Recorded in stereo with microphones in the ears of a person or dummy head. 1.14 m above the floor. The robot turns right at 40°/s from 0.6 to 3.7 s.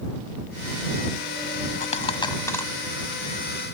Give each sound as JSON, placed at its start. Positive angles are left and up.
{"t": 1.8, "sound": "a dropped coin", "side_deg": 45}